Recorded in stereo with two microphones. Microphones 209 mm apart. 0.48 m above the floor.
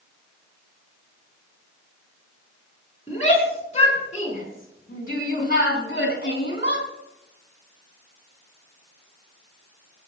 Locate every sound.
3.1 s a shout: 30° left (ahead or behind), 6 m; by 6.9 s 55° left (ahead or behind), 5 m